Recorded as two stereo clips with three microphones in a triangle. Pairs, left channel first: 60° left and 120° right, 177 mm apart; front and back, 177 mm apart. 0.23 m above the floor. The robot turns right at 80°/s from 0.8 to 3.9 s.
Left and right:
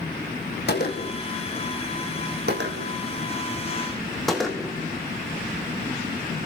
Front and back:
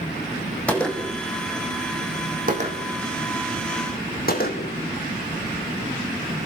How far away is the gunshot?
About 4.5 m.